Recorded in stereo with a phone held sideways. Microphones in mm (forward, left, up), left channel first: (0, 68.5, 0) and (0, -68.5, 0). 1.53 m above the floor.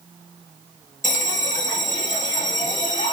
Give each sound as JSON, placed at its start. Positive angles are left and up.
{"t": 1.0, "sound": "a bell", "side_deg": 70, "distance_m": 1.0}